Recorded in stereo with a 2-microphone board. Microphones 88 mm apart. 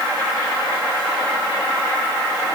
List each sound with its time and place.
Only background noise.